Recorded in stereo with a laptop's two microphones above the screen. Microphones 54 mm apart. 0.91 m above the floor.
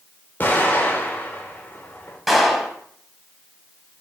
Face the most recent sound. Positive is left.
turn(degrees=0)  # may be behind; listen again after turning